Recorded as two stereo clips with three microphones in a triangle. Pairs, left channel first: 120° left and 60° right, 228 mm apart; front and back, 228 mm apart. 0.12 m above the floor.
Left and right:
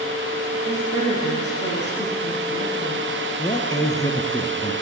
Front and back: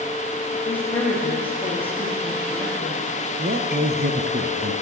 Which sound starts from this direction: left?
A woman speaking, at 0.7 s.